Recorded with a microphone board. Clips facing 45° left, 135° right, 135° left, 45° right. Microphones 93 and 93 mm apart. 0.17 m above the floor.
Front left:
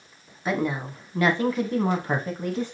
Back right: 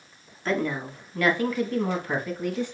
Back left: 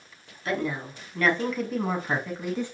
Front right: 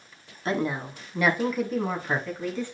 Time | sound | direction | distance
0.5 | a woman speaking | 25° right | 1.3 m